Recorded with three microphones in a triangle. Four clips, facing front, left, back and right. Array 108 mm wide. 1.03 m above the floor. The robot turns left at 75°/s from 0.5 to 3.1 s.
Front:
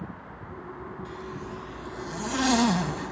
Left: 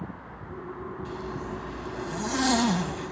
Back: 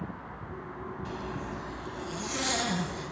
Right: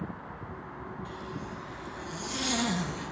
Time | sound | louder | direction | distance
1.1 | a zipper | left 5 dB, back 2 dB | 150° left | 0.7 m